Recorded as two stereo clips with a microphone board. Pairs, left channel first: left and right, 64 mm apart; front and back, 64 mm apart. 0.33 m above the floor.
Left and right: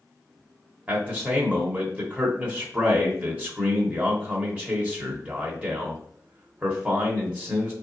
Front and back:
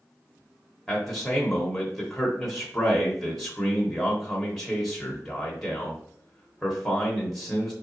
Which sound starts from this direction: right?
A man speaking, at 0.9 s.